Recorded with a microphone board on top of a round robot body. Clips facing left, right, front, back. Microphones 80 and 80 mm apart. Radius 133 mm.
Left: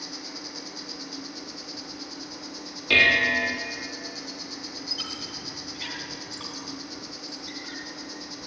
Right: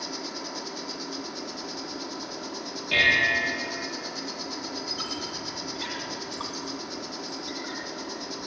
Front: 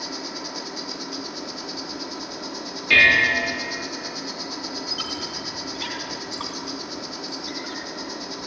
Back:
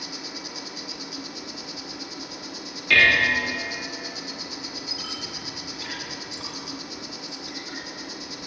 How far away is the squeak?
About 3 m.